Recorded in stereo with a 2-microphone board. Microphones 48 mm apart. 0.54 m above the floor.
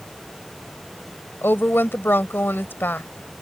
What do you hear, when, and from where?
1.4 s a woman speaking: 50° left (ahead or behind)